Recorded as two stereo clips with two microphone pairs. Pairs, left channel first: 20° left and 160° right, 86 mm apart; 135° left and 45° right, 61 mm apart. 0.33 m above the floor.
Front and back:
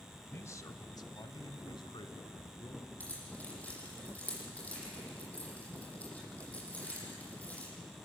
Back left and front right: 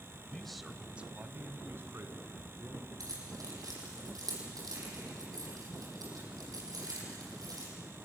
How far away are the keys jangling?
About 8 m.